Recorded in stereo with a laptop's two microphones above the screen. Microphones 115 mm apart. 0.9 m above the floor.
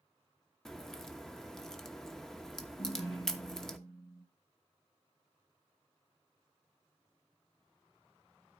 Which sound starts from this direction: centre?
A crack, at 0.7 s.